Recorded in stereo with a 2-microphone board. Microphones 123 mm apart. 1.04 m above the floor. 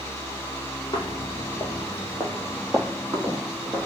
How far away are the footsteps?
About 2 m.